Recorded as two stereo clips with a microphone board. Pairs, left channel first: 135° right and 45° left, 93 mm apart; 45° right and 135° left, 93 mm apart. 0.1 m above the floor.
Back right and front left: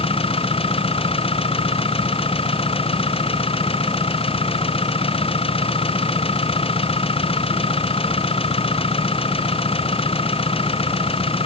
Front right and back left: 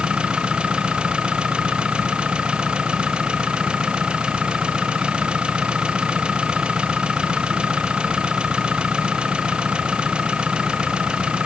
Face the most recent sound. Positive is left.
turn(degrees=-145)